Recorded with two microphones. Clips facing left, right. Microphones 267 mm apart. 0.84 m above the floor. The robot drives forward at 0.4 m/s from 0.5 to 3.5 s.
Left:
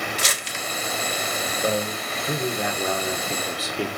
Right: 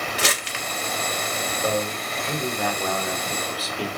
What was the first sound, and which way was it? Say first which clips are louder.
Crumpling: right 3 dB; 65° right (ahead or behind).